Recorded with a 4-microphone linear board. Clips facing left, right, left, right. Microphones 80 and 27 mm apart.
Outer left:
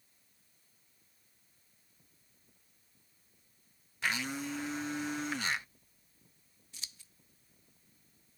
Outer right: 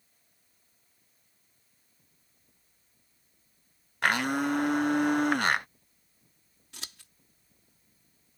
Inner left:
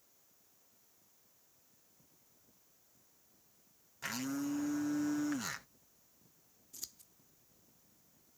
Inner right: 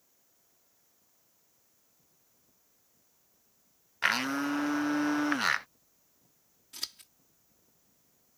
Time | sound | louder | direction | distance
4.0 | a blender | outer right 9 dB, inner right 10 dB | 60° right (ahead or behind) | ?
6.7 | scissors | outer right 7 dB, inner right 11 dB | 80° right | ?